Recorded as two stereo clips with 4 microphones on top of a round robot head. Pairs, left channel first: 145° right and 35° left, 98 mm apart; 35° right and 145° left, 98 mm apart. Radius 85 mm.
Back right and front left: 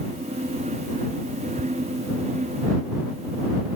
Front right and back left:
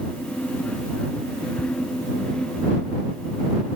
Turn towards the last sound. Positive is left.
turn(degrees=85)